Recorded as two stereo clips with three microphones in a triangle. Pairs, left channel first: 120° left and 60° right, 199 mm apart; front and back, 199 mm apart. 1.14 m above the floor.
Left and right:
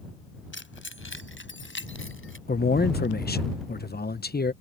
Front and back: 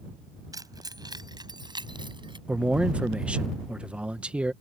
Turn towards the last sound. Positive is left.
turn(degrees=95)